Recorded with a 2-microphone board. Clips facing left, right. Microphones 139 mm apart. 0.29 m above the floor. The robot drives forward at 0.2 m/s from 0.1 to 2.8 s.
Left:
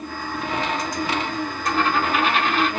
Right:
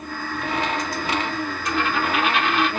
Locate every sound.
1.6 s a dropped coin: 40° left (ahead or behind), 1.7 m; by 2.7 s 35° left (ahead or behind), 1.9 m